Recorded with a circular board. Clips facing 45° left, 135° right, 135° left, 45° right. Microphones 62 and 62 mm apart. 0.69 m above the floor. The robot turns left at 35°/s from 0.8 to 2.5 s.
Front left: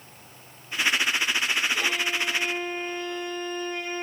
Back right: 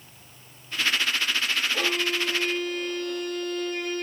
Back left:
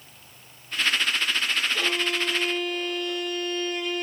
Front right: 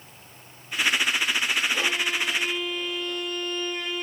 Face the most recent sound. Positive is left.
turn(degrees=-135)